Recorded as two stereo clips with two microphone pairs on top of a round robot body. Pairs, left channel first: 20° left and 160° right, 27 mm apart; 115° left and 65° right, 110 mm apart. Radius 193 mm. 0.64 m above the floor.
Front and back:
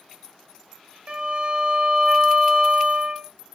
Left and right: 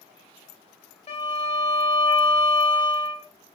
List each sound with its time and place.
1.1 s a violin: 150° left, 0.8 m